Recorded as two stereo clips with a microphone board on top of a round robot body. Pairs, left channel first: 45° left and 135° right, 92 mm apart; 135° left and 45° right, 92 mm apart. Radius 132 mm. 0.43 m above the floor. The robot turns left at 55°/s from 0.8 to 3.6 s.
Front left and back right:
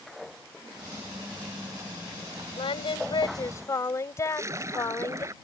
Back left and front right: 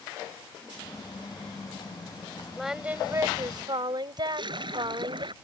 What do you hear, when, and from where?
2.6 s singing: 45° left; by 5.2 s 10° right
4.2 s a splash: 80° right